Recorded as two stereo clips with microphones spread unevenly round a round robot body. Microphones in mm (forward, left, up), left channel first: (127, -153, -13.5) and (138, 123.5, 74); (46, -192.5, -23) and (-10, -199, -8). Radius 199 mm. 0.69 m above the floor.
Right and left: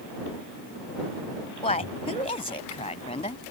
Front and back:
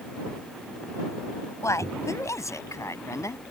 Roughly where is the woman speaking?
Ahead right.